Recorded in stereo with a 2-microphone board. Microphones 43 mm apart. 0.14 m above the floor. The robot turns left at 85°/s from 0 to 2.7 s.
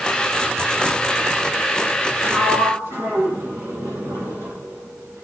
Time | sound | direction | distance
2.2 | a sliding door | 60° right (ahead or behind) | 6 m